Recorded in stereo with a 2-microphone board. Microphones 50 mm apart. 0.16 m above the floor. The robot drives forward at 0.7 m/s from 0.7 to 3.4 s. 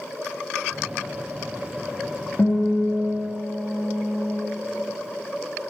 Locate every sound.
2.4 s a guitar: 50° left (ahead or behind), 3.5 m; by 4.4 s 55° left (ahead or behind), 3 m